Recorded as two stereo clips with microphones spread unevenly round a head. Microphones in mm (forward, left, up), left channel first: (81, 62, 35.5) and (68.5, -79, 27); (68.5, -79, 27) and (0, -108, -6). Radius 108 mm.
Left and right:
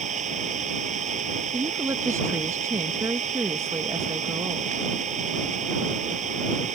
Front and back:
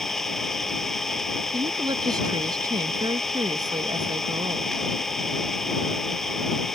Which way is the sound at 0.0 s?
60° right.